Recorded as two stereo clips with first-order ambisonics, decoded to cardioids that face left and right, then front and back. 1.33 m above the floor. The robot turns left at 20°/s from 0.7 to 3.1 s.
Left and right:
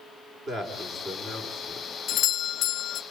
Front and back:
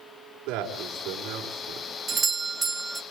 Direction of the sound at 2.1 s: 125° left.